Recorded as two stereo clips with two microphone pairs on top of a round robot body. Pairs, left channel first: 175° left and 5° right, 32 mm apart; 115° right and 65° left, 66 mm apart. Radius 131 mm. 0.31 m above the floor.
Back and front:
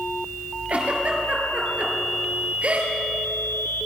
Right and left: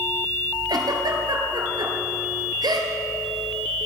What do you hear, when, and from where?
0.7 s a giggle: 45° left, 3 m